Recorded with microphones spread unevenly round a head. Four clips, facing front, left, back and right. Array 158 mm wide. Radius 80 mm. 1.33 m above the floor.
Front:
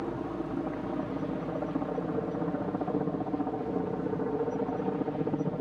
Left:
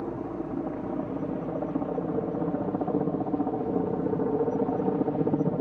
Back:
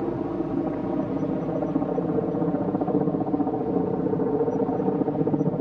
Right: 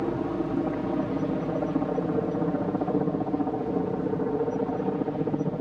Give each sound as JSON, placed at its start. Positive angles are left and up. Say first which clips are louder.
{"t": 0.0, "sound": "a helicopter", "louder": "right 5 dB, back 7 dB", "azimuth_deg": -145}